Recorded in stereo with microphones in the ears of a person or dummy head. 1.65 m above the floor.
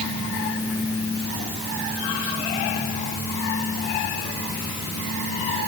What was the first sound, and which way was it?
Only background noise.